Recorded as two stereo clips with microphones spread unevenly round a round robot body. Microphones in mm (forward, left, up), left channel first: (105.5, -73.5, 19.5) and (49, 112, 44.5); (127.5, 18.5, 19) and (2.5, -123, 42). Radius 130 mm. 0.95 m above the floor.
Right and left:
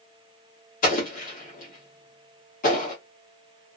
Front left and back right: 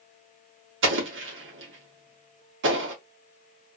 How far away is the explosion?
About 1.0 m.